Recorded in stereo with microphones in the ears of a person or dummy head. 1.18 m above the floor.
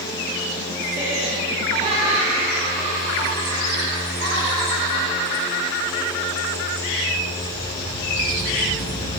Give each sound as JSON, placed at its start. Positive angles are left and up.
{"t": 0.9, "sound": "laughter", "side_deg": -20, "distance_m": 6.5}